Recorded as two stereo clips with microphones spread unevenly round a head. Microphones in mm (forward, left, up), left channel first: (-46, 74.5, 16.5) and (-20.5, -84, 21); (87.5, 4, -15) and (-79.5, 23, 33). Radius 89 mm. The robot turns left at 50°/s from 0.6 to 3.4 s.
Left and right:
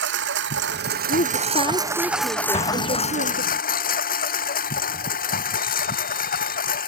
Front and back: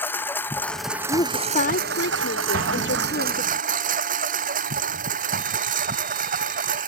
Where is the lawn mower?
85° right; by 6.9 s 135° left.